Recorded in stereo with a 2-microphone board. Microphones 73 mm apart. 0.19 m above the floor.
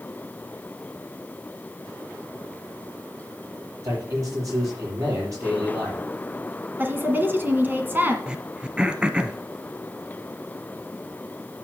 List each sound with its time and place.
3.8 s a man speaking: 50° right (ahead or behind), 6 m
6.8 s a woman speaking: 30° right (ahead or behind), 1.8 m
8.3 s throat clearing: 15° right (ahead or behind), 0.7 m